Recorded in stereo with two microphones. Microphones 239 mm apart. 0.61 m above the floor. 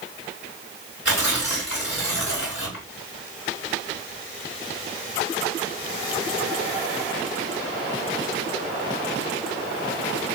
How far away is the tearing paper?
About 1.7 m.